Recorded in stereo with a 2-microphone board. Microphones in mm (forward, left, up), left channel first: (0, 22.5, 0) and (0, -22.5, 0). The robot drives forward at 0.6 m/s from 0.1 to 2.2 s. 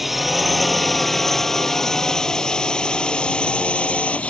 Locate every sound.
0.0 s a drone: centre (ahead or behind); by 4.3 s 30° left (ahead or behind)